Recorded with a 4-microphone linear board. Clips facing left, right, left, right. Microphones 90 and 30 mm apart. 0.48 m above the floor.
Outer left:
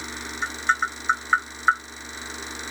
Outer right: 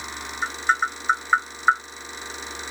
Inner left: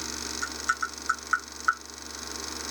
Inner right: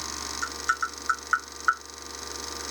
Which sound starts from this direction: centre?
Tapping, at 0.4 s.